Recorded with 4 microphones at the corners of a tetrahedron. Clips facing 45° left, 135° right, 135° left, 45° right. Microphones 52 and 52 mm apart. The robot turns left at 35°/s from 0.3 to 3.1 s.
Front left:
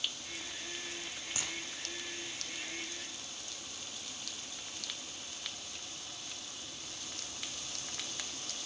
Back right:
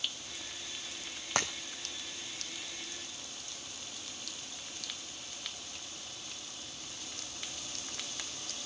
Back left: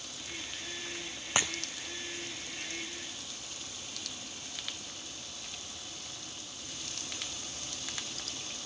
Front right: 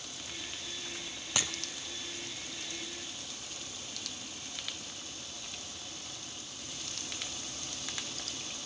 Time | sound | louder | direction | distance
1.4 | breaking glass | back right 10 dB, back left 4 dB | 165° right | 1.5 m